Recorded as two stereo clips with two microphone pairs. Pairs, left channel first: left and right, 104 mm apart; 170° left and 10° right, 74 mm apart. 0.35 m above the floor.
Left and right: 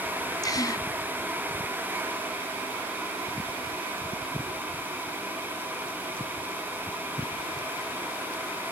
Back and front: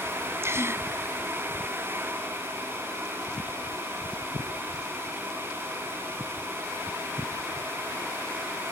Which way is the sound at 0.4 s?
40° left.